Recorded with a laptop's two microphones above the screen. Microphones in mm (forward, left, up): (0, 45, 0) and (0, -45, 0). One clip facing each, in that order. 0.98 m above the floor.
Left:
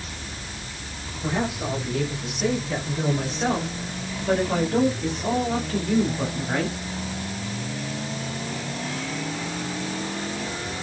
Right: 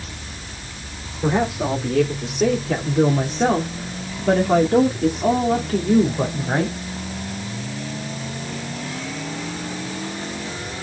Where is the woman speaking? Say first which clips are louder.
Right 6 dB; 75° right (ahead or behind), 4 m; by 6.8 s 35° right (ahead or behind), 3.5 m.